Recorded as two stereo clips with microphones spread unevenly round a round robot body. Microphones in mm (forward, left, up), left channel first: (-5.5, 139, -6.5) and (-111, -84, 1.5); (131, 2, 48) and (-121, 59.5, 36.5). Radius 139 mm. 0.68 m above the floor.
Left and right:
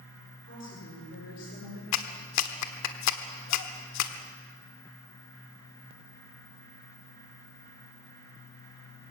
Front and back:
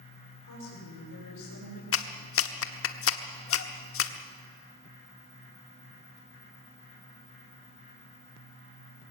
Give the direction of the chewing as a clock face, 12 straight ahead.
No chewing in this recording.